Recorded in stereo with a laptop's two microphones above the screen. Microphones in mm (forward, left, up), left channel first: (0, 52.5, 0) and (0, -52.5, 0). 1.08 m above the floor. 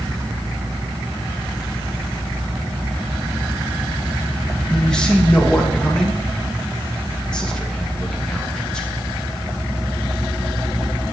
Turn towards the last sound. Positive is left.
turn(degrees=10)  # may be behind; listen again after turning